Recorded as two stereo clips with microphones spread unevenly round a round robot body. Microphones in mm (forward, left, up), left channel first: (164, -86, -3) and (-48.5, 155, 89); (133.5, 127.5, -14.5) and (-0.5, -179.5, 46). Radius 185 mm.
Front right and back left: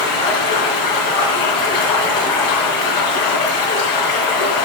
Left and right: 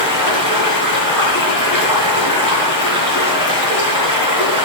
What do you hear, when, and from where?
0.0 s running water: 35° right, 3.5 m